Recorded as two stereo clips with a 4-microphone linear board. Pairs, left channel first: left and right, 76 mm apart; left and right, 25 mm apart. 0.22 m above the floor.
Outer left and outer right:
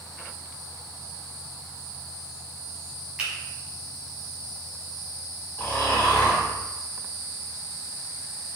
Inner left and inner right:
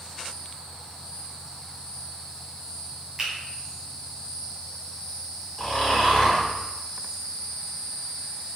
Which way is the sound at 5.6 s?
25° left (ahead or behind).